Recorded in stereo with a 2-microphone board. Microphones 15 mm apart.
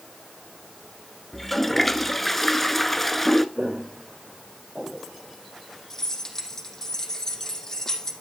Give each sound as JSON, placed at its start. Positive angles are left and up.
{"t": 1.3, "sound": "a toilet flushing", "side_deg": 10, "distance_m": 0.8}
{"t": 3.5, "sound": "footsteps", "side_deg": -85, "distance_m": 4.0}
{"t": 5.9, "sound": "keys jangling", "side_deg": 25, "distance_m": 3.5}